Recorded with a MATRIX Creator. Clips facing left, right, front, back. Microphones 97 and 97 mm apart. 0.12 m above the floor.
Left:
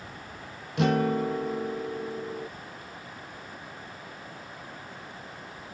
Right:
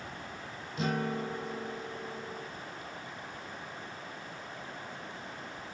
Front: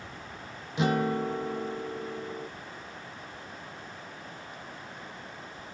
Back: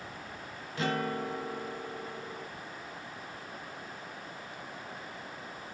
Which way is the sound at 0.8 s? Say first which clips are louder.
Left 8 dB, front 5 dB; 70° left.